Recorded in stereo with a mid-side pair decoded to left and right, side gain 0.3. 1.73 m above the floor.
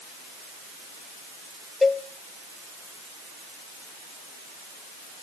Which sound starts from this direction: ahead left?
A cowbell, at 1.8 s.